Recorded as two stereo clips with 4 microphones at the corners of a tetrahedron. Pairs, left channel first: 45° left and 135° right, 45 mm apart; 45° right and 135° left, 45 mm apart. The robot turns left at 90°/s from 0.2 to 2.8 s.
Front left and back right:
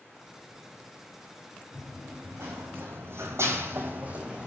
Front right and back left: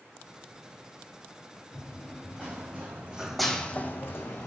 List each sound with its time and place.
1.7 s running footsteps: 95° right, 1.5 m; by 4.5 s 65° right, 0.9 m